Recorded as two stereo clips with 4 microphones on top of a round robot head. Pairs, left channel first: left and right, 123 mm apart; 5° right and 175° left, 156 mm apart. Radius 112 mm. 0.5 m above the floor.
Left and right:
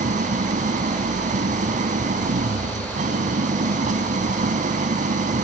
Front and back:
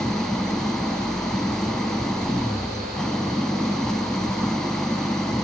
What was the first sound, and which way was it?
An engine running, 90° right.